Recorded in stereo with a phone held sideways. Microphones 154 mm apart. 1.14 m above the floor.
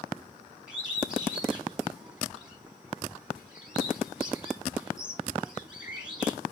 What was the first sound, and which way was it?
A bird, 5° right (ahead or behind).